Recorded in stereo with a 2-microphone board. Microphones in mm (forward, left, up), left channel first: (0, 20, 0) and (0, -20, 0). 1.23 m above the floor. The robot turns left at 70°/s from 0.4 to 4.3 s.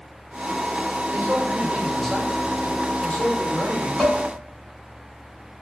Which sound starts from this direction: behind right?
A man speaking, at 1.1 s.